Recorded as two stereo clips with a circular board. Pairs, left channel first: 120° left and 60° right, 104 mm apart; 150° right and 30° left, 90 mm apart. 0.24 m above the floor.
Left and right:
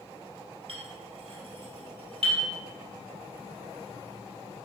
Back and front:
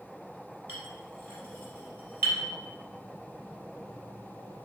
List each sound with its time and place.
0.7 s a clink: 35° right, 2.5 m